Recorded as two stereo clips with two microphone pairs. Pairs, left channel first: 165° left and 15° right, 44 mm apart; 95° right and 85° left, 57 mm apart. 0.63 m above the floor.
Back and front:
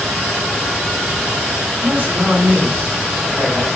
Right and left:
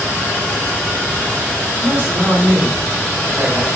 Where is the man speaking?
45° left, 3 m.